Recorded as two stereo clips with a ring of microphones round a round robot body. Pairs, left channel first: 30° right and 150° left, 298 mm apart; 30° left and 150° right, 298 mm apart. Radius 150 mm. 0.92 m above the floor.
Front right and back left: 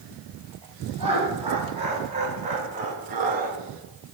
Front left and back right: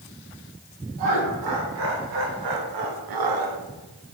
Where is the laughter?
140° right, 3.5 m; by 3.6 s 150° right, 1.4 m.